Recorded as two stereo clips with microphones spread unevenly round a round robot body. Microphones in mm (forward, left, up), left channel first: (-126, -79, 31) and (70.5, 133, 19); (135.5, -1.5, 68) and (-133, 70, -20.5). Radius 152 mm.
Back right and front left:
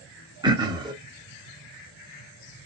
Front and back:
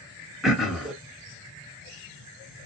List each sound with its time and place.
0.4 s throat clearing: 105° left, 1.1 m